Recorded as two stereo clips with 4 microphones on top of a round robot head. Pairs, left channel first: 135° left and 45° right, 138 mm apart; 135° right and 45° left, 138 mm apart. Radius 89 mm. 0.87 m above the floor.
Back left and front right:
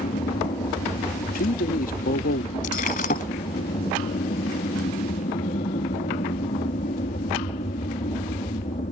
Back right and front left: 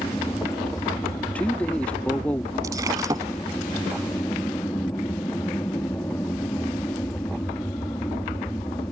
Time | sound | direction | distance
0.0 | an aircraft | 155° left | ?
1.3 | a man speaking | 145° left | ?
2.6 | breaking glass | 115° left | ?